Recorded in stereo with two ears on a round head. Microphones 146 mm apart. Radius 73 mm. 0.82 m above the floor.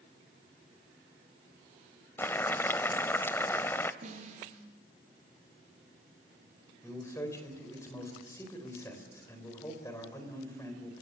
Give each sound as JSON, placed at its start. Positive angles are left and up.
{"t": 2.2, "sound": "boiling", "side_deg": 15, "distance_m": 0.6}
{"t": 4.0, "sound": "a snare drum", "side_deg": -45, "distance_m": 6.5}
{"t": 6.8, "sound": "a man speaking", "side_deg": 20, "distance_m": 3.5}